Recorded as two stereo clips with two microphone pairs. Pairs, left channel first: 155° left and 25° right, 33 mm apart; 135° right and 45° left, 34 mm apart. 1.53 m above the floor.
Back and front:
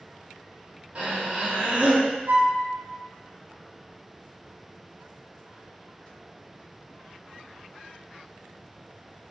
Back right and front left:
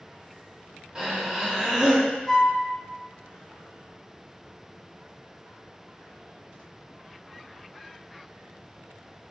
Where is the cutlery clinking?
No cutlery clinking in this recording.